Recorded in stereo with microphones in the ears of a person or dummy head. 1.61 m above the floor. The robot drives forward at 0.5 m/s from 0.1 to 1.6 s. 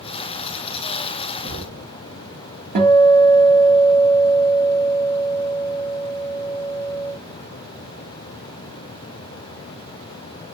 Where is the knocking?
45° left (ahead or behind), 4 m.